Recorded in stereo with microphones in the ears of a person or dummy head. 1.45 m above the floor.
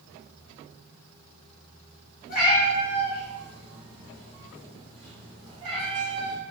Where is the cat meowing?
45° left (ahead or behind), 1.7 m; by 6.4 s 35° right (ahead or behind), 1.2 m.